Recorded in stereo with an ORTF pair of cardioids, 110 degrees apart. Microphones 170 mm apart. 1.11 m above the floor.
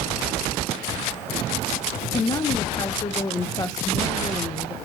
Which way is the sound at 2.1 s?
25° left.